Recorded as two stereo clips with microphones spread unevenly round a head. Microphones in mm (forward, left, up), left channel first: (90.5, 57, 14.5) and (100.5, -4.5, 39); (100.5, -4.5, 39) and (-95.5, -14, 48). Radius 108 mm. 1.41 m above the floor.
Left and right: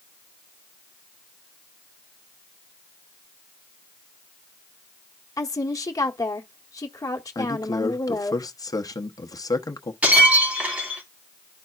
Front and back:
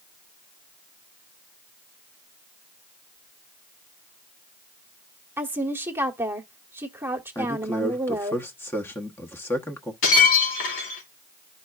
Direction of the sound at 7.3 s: 85° left.